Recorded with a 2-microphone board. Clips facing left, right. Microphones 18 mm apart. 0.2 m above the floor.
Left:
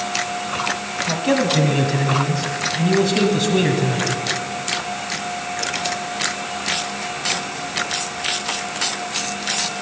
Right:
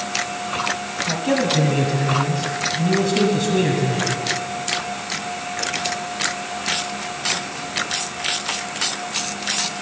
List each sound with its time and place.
1.1 s a man speaking: 20° left (ahead or behind), 1.2 m